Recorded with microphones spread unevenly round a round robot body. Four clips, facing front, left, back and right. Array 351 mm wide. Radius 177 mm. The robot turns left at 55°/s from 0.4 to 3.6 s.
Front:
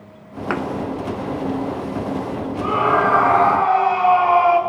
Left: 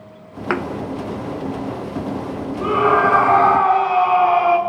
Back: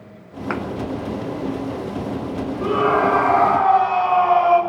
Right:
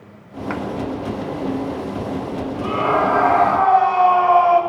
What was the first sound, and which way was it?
A thud, 105° left.